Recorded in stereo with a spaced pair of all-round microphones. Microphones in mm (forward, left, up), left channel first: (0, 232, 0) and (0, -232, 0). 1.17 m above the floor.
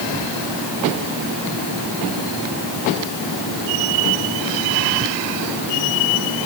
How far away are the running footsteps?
No running footsteps in this recording.